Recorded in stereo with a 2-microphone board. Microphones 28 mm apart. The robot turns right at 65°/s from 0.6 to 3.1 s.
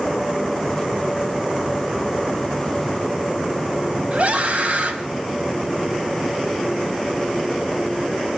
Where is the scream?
60° right (ahead or behind), 3 m.